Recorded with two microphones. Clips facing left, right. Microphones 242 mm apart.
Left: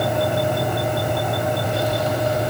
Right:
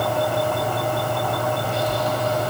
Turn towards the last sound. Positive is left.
No sound to turn to.